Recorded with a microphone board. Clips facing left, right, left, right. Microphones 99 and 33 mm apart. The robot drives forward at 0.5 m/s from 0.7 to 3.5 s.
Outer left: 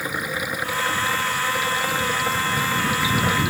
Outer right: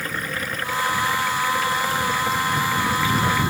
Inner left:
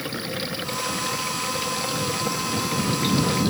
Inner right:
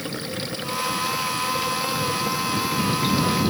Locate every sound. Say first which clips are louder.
0.0 s running water: outer left 1 dB, inner left 1 dB; 10° left (ahead or behind)